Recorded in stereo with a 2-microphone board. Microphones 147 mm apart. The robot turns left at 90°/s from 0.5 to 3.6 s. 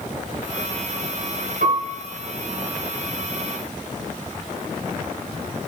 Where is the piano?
90° right, 2.5 m; by 1.9 s 120° right, 2.5 m.